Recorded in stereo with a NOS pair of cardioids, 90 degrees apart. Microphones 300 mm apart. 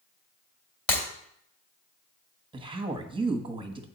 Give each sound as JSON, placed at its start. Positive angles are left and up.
{"t": 0.9, "sound": "breaking glass", "azimuth_deg": 45, "distance_m": 2.0}
{"t": 2.5, "sound": "a woman speaking", "azimuth_deg": -15, "distance_m": 1.1}